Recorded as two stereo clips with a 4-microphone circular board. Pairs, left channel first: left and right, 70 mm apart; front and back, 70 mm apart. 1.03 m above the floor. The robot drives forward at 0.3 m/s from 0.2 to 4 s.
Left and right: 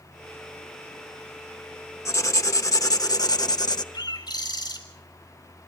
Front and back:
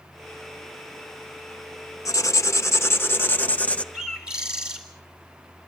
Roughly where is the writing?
Ahead left.